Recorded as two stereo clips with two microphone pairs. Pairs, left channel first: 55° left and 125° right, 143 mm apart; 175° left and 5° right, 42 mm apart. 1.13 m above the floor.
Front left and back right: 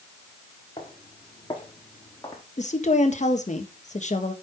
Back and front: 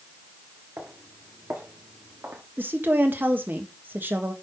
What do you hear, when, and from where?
0.8 s footsteps: 5° left, 5.5 m; by 2.4 s 5° right, 4 m
2.6 s a woman speaking: 30° left, 1.6 m